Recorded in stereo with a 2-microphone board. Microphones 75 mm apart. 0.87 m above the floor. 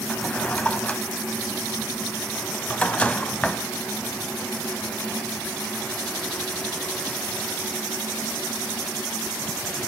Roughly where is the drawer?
Centre.